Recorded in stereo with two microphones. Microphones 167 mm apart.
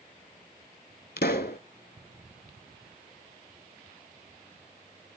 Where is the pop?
80° left, 0.5 m.